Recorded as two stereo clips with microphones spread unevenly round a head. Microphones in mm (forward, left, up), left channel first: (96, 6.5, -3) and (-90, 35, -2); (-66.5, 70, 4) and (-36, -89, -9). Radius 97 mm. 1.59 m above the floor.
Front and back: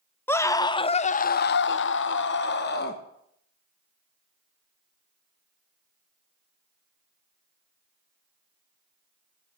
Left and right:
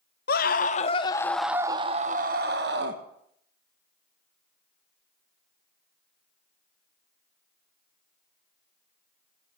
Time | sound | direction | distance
0.3 | a scream | 70° left | 1.1 m